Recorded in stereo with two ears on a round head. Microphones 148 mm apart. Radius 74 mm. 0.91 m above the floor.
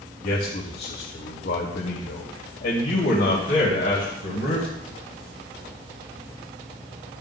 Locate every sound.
0.2 s a man speaking: 55° left (ahead or behind), 1.6 m